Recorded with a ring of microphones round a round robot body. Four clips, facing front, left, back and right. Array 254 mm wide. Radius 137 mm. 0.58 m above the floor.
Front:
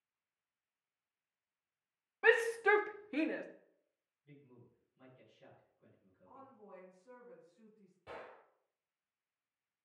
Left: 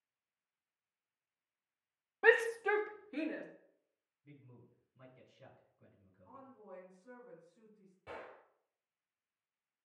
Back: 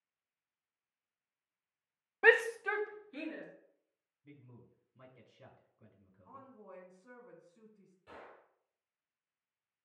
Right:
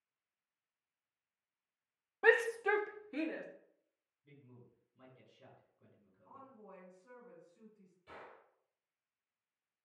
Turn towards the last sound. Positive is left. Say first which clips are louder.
# left 5 dB, front 3 dB
turn(degrees=60)